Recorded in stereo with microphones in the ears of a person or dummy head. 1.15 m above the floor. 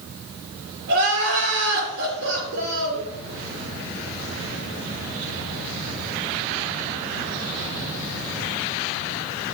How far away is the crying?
About 5 m.